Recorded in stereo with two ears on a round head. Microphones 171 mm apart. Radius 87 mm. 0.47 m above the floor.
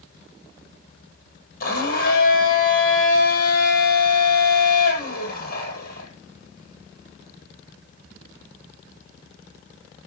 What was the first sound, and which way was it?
A blender, 50° left (ahead or behind).